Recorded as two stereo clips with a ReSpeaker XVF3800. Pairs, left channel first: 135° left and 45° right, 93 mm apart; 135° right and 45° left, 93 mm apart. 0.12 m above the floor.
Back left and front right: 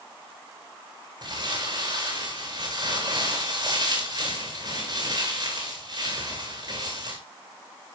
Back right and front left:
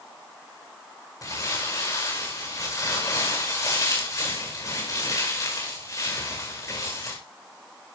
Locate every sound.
1.2 s crumpling: 80° right, 7 m